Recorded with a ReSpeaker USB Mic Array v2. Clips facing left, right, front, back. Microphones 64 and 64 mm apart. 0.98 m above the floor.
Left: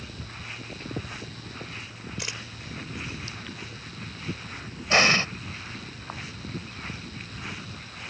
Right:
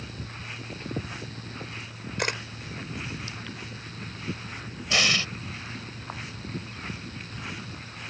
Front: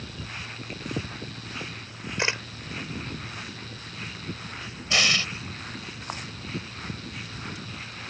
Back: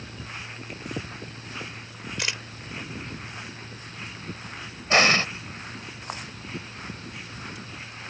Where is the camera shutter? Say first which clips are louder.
Right 9 dB, front 5 dB; 60° right.